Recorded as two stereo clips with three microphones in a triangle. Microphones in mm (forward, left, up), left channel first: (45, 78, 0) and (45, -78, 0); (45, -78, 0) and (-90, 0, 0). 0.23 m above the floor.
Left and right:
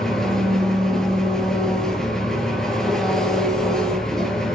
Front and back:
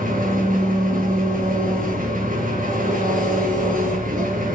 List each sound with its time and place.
0.0 s an engine running: 175° left, 3 m